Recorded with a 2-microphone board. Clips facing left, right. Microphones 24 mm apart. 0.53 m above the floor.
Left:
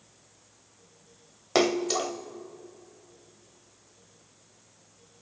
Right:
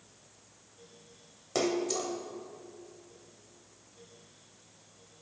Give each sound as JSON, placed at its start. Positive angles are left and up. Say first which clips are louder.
{"t": 1.6, "sound": "a splash", "louder": "left 6 dB", "side_deg": 50, "distance_m": 0.6}